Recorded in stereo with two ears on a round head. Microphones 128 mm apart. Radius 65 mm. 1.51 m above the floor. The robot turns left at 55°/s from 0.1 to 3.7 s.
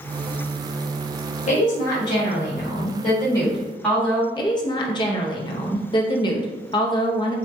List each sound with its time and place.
1.5 s a woman speaking: 125° left, 1.5 m; by 4.2 s 5° left, 1.5 m
4.3 s a woman speaking: 30° left (ahead or behind), 0.5 m